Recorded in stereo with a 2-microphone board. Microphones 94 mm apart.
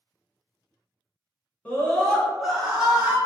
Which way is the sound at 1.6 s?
20° left (ahead or behind).